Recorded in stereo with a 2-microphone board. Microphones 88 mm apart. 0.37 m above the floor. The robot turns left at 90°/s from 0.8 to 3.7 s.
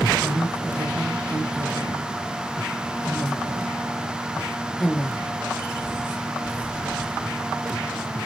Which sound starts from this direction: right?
A woman speaking, at 0.2 s.